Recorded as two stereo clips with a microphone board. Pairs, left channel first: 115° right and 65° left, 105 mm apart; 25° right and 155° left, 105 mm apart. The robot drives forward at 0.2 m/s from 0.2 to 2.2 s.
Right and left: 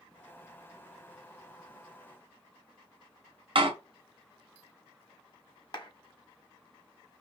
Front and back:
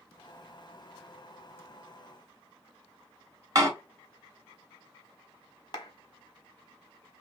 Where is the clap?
65° right, 1.4 m.